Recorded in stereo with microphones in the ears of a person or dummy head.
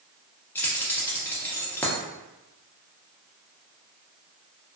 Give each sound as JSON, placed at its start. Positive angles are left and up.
{"t": 0.6, "sound": "keys jangling", "side_deg": 10, "distance_m": 0.6}